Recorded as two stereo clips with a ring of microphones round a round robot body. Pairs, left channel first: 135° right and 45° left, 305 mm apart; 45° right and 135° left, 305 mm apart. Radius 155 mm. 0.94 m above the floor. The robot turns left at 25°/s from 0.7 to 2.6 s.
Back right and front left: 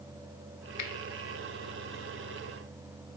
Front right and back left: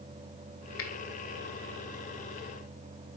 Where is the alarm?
No alarm in this recording.